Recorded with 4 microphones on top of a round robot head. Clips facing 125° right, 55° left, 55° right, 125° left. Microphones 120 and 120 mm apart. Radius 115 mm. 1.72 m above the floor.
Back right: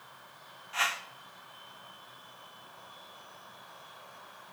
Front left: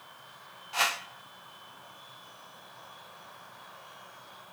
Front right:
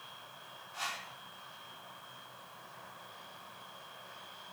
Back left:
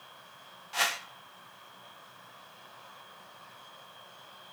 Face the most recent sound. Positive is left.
turn(degrees=115)